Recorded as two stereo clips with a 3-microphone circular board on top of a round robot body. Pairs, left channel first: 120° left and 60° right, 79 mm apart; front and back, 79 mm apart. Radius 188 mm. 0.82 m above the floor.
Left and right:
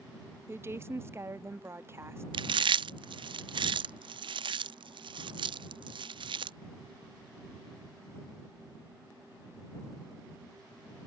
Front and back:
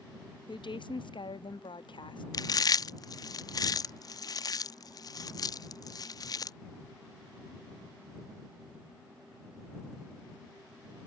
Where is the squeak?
No squeak in this recording.